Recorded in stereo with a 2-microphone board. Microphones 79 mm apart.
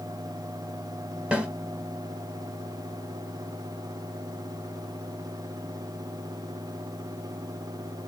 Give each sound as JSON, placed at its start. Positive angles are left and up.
{"t": 1.3, "sound": "a snare drum", "side_deg": -15, "distance_m": 1.0}